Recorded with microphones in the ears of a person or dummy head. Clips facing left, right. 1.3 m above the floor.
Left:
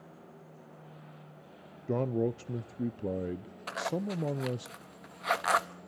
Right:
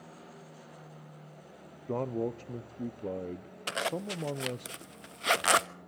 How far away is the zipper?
About 0.8 m.